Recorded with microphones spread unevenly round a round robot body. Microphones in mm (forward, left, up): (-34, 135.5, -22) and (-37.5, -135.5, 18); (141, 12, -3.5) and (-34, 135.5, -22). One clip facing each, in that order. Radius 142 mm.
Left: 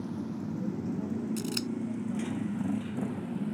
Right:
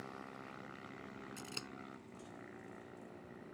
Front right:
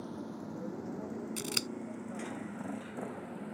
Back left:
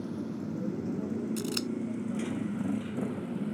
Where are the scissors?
30° left.